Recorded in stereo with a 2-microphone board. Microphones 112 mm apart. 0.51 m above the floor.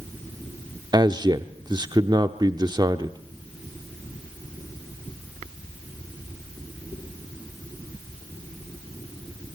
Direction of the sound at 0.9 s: 40° right (ahead or behind).